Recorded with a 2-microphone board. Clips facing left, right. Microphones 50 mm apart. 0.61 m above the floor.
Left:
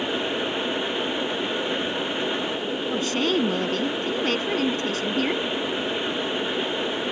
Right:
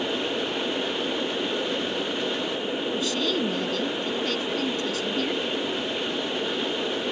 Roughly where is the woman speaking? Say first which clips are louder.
Left 5 dB; left.